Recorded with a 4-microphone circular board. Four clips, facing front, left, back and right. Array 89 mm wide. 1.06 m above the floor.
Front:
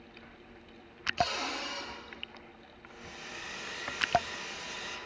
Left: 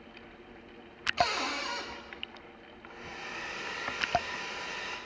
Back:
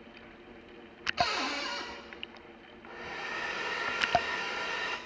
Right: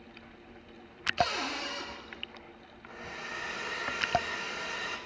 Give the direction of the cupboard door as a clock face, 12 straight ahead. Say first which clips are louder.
Left 1 dB, back 1 dB; 8 o'clock.